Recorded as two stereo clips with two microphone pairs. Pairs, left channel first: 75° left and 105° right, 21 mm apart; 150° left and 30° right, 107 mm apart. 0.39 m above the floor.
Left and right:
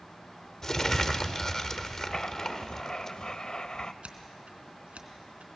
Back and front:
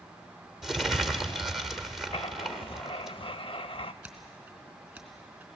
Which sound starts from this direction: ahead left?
Crumpling, at 0.6 s.